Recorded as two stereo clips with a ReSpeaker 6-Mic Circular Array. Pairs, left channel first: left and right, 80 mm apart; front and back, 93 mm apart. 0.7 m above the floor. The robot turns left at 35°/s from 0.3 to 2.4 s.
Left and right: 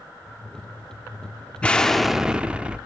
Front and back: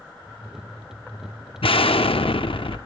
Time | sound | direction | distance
1.6 | an explosion | 15° left | 0.5 m